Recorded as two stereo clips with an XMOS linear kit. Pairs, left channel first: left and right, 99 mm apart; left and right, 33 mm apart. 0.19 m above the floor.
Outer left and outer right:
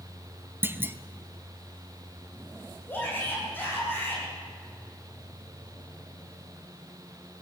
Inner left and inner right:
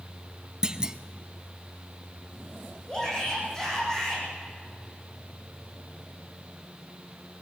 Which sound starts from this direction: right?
A clunk, at 0.6 s.